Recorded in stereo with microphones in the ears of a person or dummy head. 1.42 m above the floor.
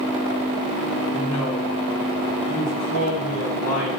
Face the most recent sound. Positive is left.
turn(degrees=90)